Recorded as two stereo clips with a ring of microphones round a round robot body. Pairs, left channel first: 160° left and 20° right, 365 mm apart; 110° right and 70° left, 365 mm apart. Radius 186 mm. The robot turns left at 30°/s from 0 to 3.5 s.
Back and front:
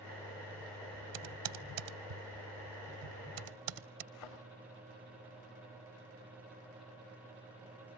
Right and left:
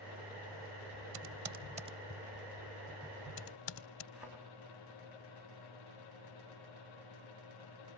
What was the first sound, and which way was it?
Typing on a keyboard, 15° left.